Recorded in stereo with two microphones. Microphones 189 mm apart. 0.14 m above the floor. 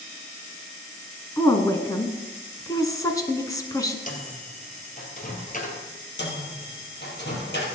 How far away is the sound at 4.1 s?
About 2 m.